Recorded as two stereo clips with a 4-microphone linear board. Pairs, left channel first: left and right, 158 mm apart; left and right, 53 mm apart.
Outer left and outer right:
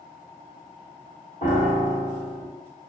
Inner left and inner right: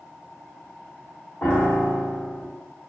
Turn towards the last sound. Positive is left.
turn(degrees=50)  # may be behind; listen again after turning